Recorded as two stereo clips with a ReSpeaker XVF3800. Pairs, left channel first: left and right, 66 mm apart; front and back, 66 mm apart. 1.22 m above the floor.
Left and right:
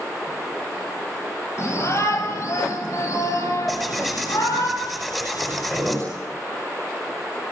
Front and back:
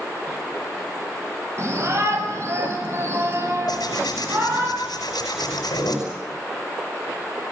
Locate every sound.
1.6 s a shout: 135° left, 7 m; by 4.7 s 125° left, 10 m
3.7 s tearing paper: 5° left, 10 m